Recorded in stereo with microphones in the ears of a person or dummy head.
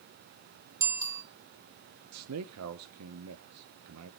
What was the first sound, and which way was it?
A bicycle bell, 15° right (ahead or behind).